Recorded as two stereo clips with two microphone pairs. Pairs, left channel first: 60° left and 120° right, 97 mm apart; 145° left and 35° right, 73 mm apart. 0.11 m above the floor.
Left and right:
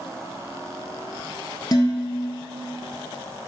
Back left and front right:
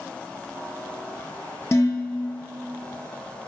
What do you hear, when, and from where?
1.7 s dishes clattering: 100° left, 1.6 m